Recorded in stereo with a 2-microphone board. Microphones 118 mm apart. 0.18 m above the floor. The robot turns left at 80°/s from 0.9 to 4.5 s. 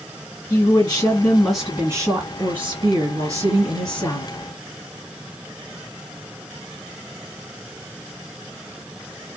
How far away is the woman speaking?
About 2 m.